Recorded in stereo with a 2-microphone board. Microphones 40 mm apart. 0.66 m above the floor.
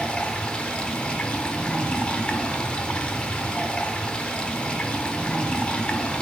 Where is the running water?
25° left (ahead or behind), 1.3 m.